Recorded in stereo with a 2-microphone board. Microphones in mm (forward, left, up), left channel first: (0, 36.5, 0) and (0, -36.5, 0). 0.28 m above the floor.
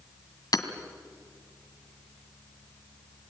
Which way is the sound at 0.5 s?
60° left (ahead or behind).